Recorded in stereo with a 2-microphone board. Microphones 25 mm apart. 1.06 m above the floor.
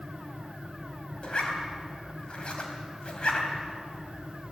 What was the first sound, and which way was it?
A zipper, 45° left (ahead or behind).